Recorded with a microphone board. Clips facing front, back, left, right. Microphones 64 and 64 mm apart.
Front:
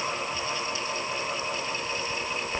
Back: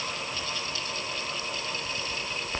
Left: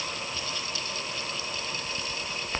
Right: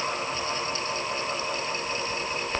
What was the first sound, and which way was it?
Only background noise.